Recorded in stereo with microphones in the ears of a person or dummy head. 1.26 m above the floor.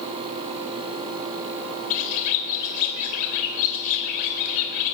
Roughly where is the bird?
Left.